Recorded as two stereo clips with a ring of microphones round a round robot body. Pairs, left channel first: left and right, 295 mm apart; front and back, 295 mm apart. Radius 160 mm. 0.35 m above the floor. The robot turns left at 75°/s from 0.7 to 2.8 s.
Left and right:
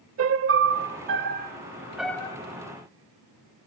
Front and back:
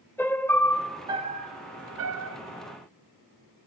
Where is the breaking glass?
I don't hear breaking glass.